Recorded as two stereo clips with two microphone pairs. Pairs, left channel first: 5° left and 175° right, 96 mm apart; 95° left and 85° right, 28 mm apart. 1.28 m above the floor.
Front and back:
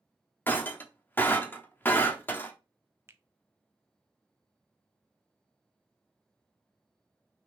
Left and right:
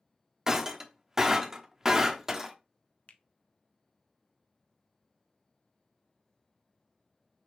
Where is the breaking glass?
35° right, 0.8 m.